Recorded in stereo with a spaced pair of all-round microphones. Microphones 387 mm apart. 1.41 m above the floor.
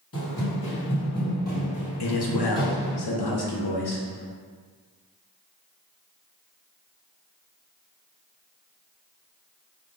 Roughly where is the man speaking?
Left.